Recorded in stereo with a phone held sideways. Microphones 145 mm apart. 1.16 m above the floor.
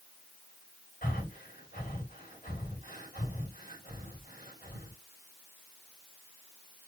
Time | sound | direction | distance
1.0 | breathing | 65° left (ahead or behind) | 4.5 m